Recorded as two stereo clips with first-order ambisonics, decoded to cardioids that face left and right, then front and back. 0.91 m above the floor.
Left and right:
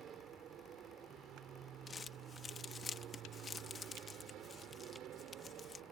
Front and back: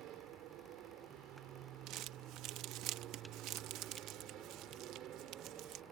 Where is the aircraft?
145° right; by 5.9 s 135° right.